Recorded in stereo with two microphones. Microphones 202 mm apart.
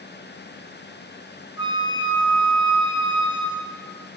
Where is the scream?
I don't hear a scream.